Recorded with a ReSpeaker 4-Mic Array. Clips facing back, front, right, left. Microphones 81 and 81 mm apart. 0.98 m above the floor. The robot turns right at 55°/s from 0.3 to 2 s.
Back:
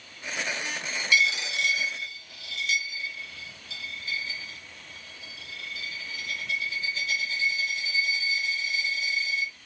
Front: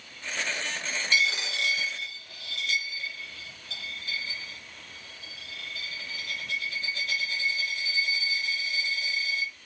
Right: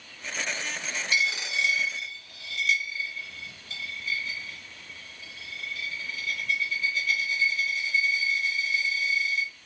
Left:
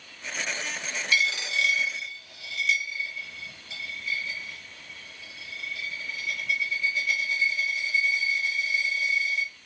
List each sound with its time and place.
1.1 s a dropped coin: 45° right, 1.1 m; by 9.5 s 5° left, 1.1 m